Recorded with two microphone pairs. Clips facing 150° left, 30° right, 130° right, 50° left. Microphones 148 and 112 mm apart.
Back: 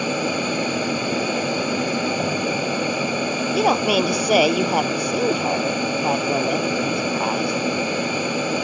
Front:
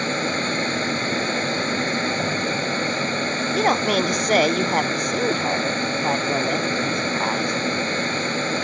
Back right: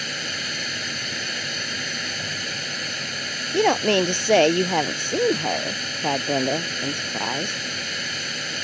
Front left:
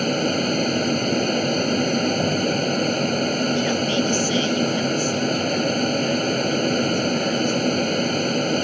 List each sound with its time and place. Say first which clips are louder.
0.0 s an aircraft: back 2 dB, front left 13 dB; 75° left
3.5 s a woman speaking: back 2 dB, back right 2 dB; 130° right